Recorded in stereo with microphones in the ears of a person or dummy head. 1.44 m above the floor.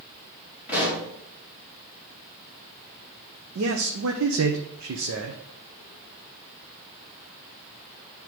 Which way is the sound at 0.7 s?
10° right (ahead or behind).